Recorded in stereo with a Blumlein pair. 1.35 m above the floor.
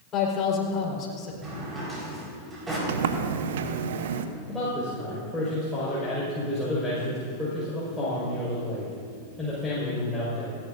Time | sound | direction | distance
0.1 | a man speaking | 30° left | 4.5 m
1.4 | a drawer | 15° right | 4.5 m
2.9 | a sliding door | 55° right | 0.9 m
4.5 | a man speaking | 5° left | 5 m